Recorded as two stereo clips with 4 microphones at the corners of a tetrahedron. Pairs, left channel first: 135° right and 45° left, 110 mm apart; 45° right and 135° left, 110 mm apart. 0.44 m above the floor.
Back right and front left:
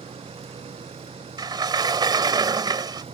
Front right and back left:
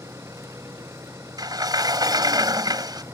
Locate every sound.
0.0 s an engine running: 70° left
1.4 s a sliding door: 90° left